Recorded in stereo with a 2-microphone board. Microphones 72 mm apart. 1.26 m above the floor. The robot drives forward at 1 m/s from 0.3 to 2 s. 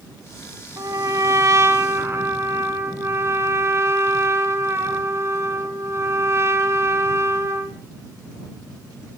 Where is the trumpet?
55° right (ahead or behind), 1.9 m; by 7.8 s 40° right (ahead or behind), 2.5 m.